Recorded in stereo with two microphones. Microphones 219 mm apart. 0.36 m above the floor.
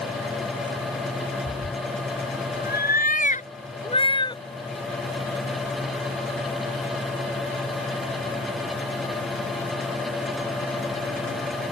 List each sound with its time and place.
1.5 s a cat meowing: 70° left (ahead or behind); by 4.4 s 20° left (ahead or behind)